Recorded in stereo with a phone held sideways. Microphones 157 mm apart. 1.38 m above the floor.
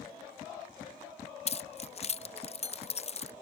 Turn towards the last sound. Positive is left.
turn(degrees=45)  # may be behind; listen again after turning